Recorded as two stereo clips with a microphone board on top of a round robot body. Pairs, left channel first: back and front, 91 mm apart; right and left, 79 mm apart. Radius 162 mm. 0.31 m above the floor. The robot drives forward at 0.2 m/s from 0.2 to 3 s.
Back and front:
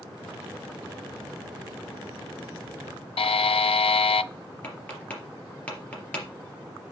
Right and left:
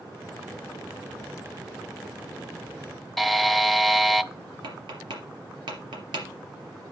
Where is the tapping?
105° left, 3.5 m.